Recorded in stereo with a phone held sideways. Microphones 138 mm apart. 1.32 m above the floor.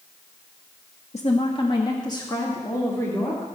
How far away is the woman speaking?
About 0.7 m.